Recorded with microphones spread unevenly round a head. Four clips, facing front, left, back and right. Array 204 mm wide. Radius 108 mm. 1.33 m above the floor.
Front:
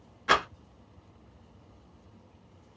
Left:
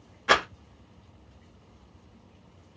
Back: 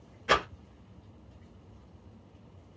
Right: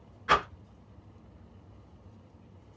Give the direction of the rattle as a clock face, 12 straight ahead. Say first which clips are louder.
Left 2 dB, front 1 dB; 9 o'clock.